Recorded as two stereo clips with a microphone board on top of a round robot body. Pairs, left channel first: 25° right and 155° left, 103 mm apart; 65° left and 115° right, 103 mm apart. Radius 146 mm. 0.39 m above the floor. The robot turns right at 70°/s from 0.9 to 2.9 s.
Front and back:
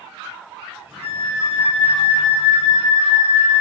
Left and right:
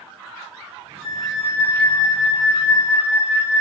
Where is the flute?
75° left, 0.9 m; by 3.6 s 150° right, 0.9 m.